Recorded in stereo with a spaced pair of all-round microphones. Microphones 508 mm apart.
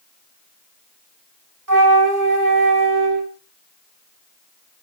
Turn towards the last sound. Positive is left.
turn(degrees=-35)  # may be behind; listen again after turning